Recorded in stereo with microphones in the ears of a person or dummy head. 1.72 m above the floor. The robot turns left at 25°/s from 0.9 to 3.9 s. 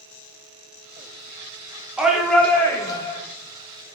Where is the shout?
Straight behind, 0.6 m; by 3.2 s 150° left, 0.6 m.